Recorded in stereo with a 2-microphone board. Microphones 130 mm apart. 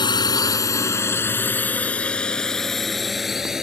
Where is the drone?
35° left (ahead or behind); by 3.6 s 5° right (ahead or behind).